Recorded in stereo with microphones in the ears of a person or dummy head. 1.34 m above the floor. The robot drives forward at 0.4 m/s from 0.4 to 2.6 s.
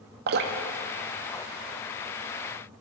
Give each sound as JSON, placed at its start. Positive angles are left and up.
{"t": 0.3, "sound": "dripping", "side_deg": -55, "distance_m": 0.8}